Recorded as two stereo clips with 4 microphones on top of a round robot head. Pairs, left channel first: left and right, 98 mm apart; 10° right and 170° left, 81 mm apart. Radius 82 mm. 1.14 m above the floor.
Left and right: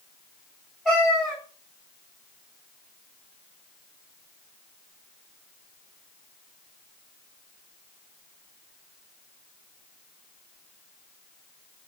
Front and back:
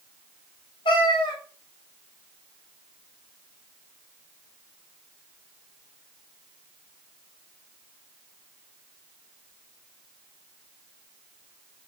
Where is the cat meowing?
Straight ahead, 0.9 m.